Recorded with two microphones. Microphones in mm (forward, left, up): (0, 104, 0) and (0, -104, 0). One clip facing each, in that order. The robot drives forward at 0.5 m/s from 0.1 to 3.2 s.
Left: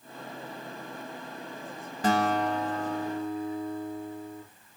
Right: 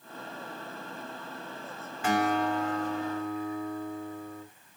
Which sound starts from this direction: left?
A guitar, at 2.0 s.